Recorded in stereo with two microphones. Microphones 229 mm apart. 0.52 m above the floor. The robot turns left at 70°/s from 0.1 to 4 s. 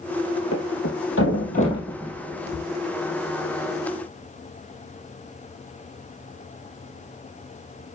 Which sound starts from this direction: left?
A thud, at 0.5 s.